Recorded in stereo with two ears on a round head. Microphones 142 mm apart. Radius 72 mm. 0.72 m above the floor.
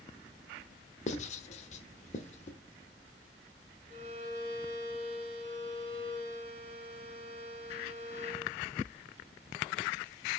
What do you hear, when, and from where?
1.1 s writing: 45° left (ahead or behind), 0.9 m
3.9 s a violin: 55° right (ahead or behind), 1.8 m